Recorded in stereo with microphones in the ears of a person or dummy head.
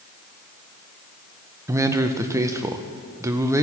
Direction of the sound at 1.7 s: 15° right (ahead or behind).